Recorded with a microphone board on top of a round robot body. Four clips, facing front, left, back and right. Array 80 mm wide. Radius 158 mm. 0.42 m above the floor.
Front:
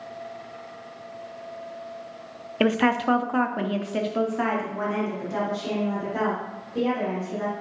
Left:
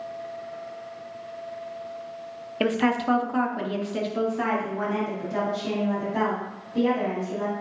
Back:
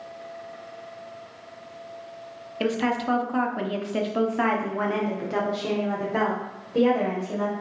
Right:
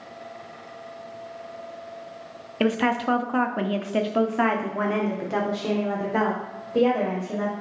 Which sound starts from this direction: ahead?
A woman speaking, at 2.6 s.